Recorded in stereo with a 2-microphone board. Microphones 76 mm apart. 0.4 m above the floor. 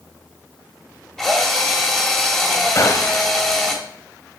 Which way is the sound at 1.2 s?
10° left (ahead or behind).